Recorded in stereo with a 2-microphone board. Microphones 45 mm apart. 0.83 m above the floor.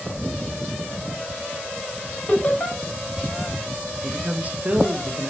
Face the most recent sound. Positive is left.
turn(degrees=-35)  # may be behind; listen again after turning